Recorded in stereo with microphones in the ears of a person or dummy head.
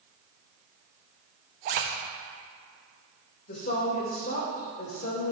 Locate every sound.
1.6 s a zipper: 45° right (ahead or behind), 0.8 m
3.5 s a woman speaking: 50° left (ahead or behind), 2.5 m